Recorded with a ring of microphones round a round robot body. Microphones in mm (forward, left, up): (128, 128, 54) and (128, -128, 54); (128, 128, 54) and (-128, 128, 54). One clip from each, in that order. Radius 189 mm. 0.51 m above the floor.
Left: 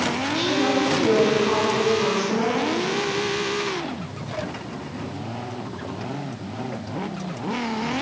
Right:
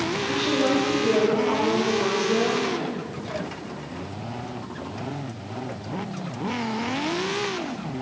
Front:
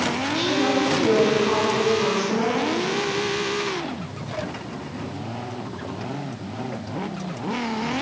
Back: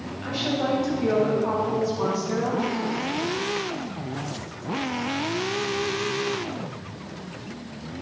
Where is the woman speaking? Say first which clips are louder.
Right 1 dB, even; 150° left, 3.5 m; by 3.0 s 175° right, 6 m.